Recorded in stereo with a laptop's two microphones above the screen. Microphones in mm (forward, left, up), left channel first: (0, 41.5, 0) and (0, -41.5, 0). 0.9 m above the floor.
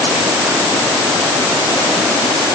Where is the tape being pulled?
No tape being pulled in this recording.